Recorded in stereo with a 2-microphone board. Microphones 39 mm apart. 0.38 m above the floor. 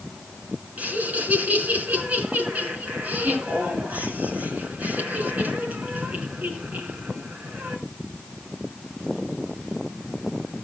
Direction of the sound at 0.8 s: 45° right (ahead or behind).